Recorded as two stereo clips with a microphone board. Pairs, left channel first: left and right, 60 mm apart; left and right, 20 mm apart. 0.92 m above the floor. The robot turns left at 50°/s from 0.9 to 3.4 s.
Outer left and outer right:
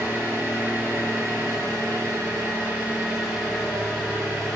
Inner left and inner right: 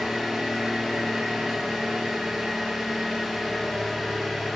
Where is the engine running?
50° right, 0.9 m; by 4.6 s 175° right, 0.9 m.